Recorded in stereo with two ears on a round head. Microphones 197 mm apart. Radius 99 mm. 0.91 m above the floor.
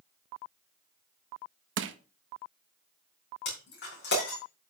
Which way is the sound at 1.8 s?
60° right (ahead or behind).